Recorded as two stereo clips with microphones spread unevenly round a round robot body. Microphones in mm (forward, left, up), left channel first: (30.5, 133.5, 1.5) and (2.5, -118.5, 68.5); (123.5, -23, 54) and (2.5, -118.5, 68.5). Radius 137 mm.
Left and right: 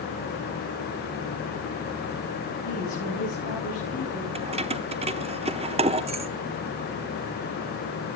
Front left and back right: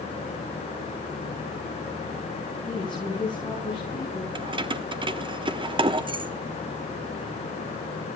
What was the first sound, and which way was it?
A woman speaking, 135° left.